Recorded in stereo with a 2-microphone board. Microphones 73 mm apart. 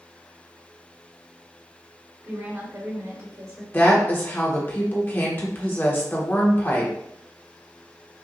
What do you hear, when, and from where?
2.2 s a woman speaking: 50° right (ahead or behind), 1.9 m; by 3.6 s 60° right (ahead or behind), 2.5 m
3.7 s a woman speaking: 30° left (ahead or behind), 1.1 m